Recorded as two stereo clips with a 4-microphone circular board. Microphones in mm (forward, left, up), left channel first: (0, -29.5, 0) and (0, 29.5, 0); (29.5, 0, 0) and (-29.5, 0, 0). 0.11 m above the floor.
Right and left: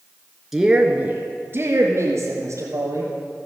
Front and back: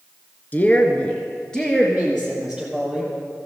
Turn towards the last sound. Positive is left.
turn(degrees=95)